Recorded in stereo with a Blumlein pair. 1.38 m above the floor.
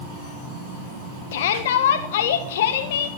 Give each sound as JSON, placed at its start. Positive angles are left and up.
{"t": 1.3, "sound": "a shout", "azimuth_deg": 55, "distance_m": 1.2}